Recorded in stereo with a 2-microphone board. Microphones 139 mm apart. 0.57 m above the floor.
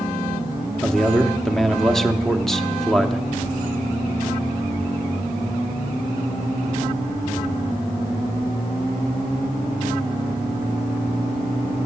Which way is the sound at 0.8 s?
Centre (ahead or behind).